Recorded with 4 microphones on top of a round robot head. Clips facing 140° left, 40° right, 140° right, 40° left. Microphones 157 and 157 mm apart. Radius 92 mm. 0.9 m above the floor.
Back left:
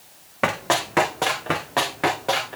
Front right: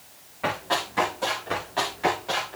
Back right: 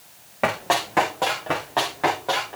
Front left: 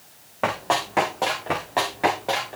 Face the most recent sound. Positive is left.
turn(degrees=110)